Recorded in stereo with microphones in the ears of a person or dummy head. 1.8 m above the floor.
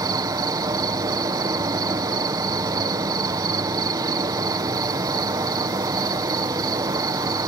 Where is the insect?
15° right (ahead or behind).